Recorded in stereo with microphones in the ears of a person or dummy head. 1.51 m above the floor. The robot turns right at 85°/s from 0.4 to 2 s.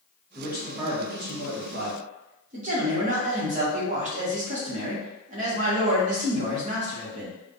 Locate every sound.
0.3 s a man speaking: 175° left, 1.1 m; by 7.4 s 50° right, 1.1 m